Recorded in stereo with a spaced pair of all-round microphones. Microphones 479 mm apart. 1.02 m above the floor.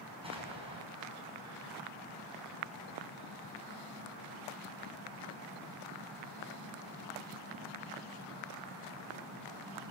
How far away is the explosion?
About 5 m.